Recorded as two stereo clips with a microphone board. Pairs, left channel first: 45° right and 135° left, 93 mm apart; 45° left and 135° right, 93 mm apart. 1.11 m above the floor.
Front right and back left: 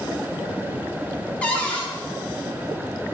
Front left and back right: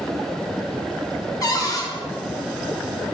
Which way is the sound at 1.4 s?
25° left.